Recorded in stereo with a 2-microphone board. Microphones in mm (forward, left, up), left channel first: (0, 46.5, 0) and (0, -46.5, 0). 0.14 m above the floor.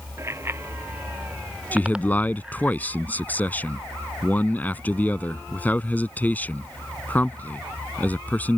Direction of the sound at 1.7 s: 20° left (ahead or behind).